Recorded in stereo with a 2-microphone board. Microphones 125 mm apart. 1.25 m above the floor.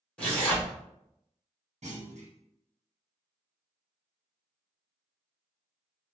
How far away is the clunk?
About 1.0 m.